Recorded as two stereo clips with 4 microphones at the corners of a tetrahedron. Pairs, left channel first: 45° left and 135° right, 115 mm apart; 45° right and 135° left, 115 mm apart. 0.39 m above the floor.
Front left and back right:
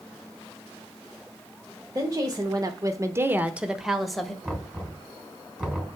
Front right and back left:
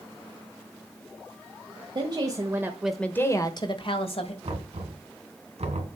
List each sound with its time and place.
1.9 s a woman speaking: 170° left, 1.4 m; by 4.3 s 40° right, 1.6 m
4.4 s knocking: 145° left, 3 m